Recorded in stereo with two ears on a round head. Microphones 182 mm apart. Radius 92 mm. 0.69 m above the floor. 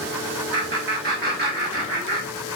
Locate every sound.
0.5 s laughter: 50° right (ahead or behind), 1.5 m